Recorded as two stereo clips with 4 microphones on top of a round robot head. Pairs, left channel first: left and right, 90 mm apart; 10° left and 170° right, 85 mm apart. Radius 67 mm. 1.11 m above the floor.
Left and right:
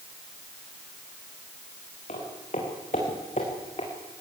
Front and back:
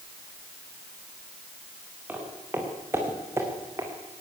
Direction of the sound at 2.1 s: 120° left.